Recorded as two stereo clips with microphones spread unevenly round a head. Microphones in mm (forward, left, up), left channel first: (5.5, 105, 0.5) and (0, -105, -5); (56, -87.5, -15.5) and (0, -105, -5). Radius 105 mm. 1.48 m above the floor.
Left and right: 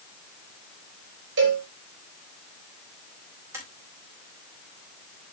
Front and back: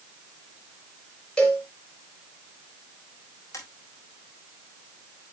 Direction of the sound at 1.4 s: 55° right.